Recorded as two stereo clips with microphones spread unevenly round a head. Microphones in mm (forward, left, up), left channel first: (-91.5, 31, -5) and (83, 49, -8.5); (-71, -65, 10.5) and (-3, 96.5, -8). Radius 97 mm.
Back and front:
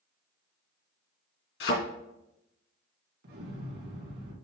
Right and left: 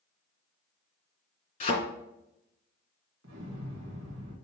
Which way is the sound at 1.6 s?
160° right.